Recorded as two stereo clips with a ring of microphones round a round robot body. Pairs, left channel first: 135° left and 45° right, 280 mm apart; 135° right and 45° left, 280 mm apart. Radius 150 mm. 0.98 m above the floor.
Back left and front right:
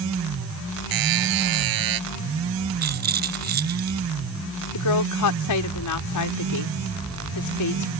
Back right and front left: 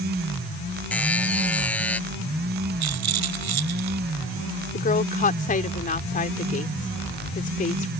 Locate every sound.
0.9 s a buzzer: 50° right
2.8 s a rattle: 15° left
4.7 s a woman speaking: 160° left